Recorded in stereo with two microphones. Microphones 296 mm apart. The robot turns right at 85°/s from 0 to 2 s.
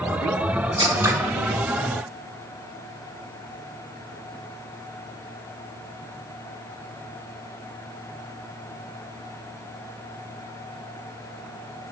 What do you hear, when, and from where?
0.8 s scissors: 15° right (ahead or behind), 0.8 m; by 1.1 s 5° right (ahead or behind), 0.8 m